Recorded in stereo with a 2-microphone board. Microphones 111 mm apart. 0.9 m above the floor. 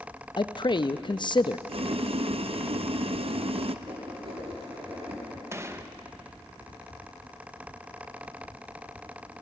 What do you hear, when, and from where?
0.4 s a man speaking: 45° left (ahead or behind), 0.6 m
1.7 s boiling: 60° right (ahead or behind), 0.6 m
3.9 s writing: 50° right (ahead or behind), 10 m
5.5 s a gunshot: 25° right (ahead or behind), 0.8 m